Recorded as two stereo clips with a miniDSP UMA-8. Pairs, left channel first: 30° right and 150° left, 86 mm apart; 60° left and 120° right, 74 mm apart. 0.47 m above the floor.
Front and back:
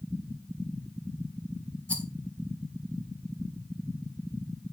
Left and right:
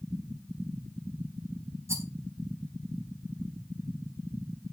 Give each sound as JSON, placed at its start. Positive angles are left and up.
{"t": 1.9, "sound": "a rattle", "azimuth_deg": -95, "distance_m": 1.5}